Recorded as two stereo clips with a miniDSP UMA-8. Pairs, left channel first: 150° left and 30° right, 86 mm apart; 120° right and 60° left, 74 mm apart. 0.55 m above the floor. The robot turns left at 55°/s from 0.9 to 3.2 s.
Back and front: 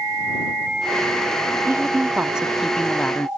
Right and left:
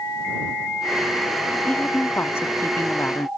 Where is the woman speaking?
65° right; by 3.3 s 150° right.